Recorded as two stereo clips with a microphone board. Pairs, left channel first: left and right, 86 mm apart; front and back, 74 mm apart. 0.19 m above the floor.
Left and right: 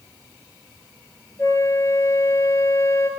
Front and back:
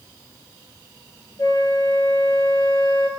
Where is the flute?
35° left, 4.5 m.